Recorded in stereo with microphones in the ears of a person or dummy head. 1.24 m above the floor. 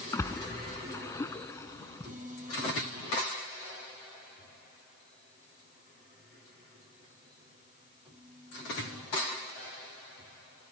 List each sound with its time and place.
0.1 s a splash: 15° left (ahead or behind)